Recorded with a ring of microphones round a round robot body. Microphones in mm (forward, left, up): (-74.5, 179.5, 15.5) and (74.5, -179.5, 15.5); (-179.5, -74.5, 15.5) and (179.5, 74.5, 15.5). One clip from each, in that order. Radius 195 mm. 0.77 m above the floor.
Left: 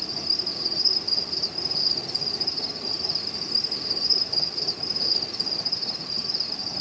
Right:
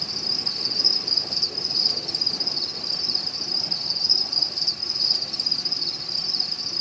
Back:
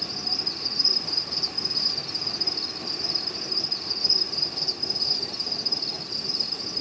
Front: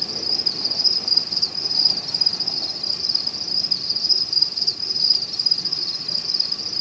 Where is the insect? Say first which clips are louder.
Right 1 dB, front 5 dB; 35° right, 2.5 m.